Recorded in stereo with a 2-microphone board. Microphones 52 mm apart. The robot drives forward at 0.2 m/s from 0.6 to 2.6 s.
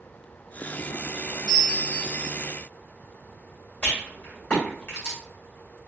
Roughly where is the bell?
Centre.